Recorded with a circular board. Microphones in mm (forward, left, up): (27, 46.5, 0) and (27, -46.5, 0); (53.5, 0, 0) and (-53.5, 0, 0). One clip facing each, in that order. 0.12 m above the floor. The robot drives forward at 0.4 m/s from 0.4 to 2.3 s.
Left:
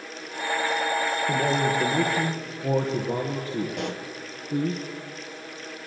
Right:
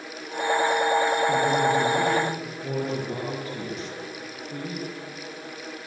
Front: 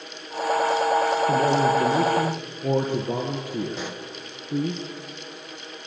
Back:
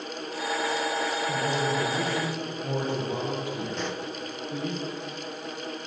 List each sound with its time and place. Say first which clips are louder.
1.3 s a man speaking: right 2 dB, front 8 dB; 35° left, 3.5 m
3.7 s a pop: left 4 dB, back 1 dB; 85° left, 1.7 m